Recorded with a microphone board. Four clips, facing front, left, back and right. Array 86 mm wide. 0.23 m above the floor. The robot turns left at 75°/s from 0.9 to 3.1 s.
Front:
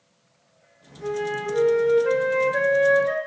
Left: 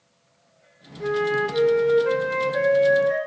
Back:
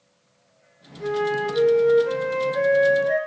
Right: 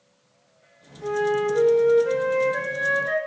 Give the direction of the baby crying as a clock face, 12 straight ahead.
No baby crying in this recording.